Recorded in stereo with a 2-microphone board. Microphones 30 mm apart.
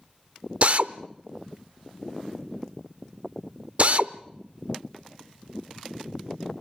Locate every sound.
0.6 s a drill: 45° right (ahead or behind), 0.6 m